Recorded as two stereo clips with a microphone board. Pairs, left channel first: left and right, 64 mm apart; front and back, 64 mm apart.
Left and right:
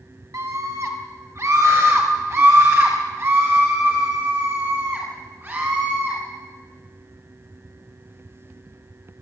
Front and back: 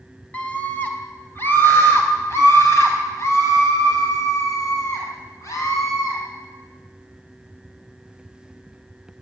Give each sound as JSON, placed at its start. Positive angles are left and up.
{"t": 0.3, "sound": "a scream", "azimuth_deg": -65, "distance_m": 3.5}